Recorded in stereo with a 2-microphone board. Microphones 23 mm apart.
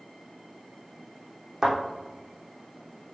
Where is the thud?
25° right (ahead or behind), 3 m.